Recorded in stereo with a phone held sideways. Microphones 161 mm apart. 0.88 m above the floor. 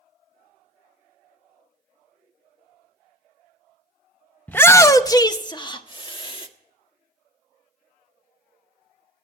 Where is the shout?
10° left (ahead or behind), 0.6 m; by 6.5 s 35° left (ahead or behind), 1.6 m.